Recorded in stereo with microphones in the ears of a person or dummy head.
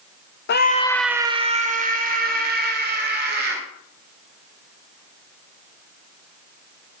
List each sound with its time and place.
0.5 s a scream: 55° left (ahead or behind), 0.7 m; by 3.6 s 65° right (ahead or behind), 3.5 m